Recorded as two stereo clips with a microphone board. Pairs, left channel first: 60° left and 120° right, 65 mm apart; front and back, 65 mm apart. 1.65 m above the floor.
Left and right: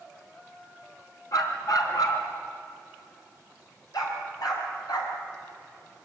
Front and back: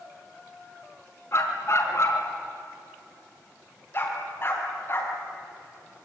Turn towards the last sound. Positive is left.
turn(degrees=55)